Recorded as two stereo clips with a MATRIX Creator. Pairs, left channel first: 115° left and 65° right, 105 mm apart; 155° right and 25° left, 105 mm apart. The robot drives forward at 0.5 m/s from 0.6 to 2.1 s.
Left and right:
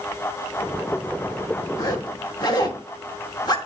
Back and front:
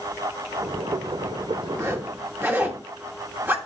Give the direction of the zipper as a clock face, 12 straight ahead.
10 o'clock.